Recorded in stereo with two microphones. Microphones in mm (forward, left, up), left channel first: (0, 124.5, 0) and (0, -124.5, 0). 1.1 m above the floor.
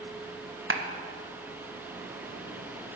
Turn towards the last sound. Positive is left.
turn(degrees=-55)  # may be behind; listen again after turning